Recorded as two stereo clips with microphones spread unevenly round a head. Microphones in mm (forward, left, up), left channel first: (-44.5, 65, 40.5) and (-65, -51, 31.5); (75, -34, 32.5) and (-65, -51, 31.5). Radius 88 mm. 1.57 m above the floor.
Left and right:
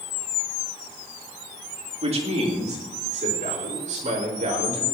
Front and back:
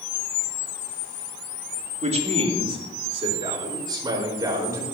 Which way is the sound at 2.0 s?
130° right.